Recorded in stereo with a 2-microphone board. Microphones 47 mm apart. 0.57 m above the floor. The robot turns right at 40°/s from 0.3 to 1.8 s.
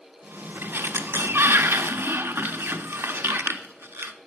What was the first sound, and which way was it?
A sliding door, 125° right.